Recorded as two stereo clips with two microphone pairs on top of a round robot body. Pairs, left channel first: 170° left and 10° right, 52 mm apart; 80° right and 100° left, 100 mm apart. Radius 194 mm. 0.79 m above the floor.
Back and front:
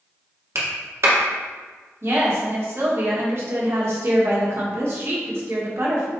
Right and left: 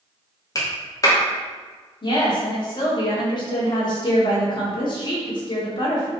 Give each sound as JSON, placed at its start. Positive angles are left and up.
{"t": 0.6, "sound": "a clap", "azimuth_deg": -25, "distance_m": 2.5}
{"t": 2.0, "sound": "a woman speaking", "azimuth_deg": -40, "distance_m": 1.9}